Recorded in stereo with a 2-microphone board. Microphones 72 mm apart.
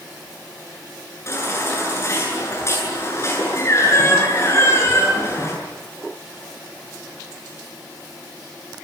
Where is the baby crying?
35° left (ahead or behind), 8.5 m.